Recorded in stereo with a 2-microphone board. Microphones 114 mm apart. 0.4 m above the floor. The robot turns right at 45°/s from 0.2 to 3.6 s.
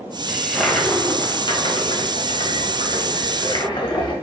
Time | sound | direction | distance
0.3 | a toilet flushing | 15° right | 1.0 m